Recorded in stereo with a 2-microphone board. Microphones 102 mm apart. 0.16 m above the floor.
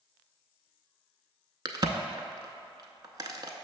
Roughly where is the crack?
Right.